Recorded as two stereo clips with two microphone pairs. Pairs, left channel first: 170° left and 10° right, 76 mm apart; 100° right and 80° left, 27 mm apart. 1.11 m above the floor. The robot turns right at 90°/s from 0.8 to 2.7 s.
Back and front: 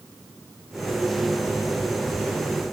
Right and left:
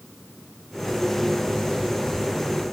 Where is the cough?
I don't hear a cough.